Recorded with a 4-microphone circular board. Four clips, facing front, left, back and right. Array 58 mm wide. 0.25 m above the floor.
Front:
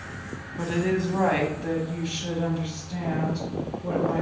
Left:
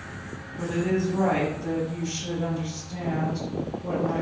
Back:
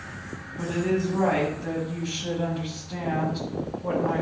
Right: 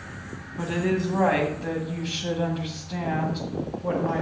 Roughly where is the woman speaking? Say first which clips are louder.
Even, even; ahead right.